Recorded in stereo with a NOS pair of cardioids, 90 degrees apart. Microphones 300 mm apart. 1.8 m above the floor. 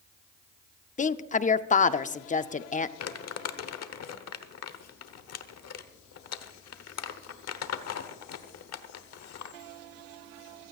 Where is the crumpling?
60° left, 1.2 m.